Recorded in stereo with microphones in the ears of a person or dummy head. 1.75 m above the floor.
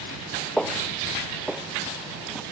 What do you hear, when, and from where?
0.6 s footsteps: 5° left (ahead or behind); by 2.4 s 5° right (ahead or behind)